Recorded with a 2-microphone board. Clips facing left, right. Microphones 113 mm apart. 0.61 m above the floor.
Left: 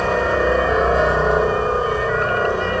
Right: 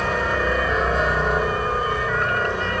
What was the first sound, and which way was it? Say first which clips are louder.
A helicopter: left 5 dB; 25° left (ahead or behind).